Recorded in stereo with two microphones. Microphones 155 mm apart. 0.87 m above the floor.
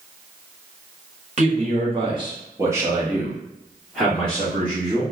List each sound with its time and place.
1.4 s a man speaking: 50° right (ahead or behind), 1.1 m; by 5.0 s 10° left (ahead or behind), 2.0 m